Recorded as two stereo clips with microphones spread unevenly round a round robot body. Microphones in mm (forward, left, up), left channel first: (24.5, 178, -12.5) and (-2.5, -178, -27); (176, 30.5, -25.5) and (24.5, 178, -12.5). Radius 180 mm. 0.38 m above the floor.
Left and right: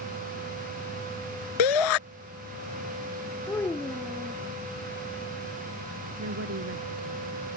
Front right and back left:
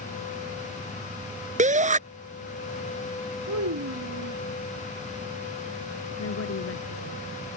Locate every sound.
1.6 s a shout: 80° left
3.5 s a child speaking: 170° left
6.2 s a woman speaking: 40° right